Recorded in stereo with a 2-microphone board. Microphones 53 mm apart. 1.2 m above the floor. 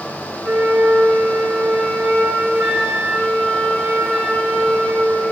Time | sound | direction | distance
0.4 | a flute | 5° left (ahead or behind) | 5 m